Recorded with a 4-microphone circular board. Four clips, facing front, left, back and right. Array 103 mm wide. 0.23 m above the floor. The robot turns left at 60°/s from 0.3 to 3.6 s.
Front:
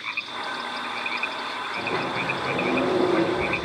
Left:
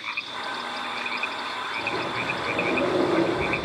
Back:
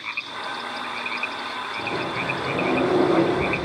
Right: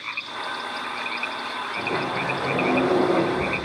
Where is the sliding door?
60° right, 6.5 m; by 3.6 s 170° right, 6.5 m.